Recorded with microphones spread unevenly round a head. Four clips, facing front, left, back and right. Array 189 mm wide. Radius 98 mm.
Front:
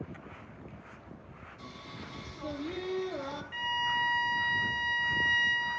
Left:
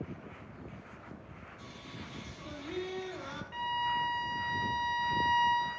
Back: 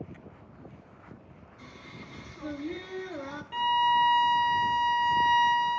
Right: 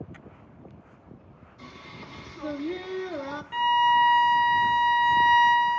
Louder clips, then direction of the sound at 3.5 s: Right 13 dB, back 10 dB; 145° right.